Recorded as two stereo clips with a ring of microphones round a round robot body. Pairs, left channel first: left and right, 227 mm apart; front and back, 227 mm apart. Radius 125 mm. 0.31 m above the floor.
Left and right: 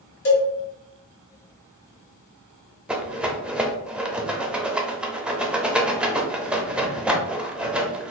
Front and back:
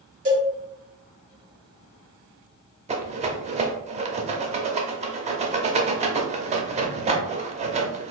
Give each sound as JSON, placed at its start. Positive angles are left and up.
{"t": 0.2, "sound": "a cowbell", "azimuth_deg": 125, "distance_m": 1.6}
{"t": 2.9, "sound": "a rattle", "azimuth_deg": -170, "distance_m": 0.6}